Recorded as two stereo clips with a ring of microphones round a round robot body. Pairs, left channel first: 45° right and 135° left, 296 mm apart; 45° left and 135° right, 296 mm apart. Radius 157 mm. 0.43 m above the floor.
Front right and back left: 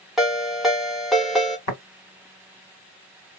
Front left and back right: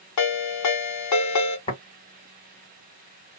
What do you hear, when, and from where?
0.2 s a ringtone: 45° left, 1.0 m
1.7 s tapping: 25° right, 1.5 m